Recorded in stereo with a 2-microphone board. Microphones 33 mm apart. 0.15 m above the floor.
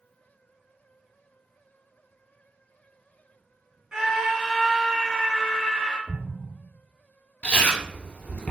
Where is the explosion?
40° left (ahead or behind), 0.8 m.